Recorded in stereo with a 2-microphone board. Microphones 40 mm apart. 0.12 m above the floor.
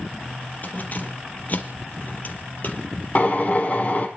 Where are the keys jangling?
45° left (ahead or behind), 2.5 m.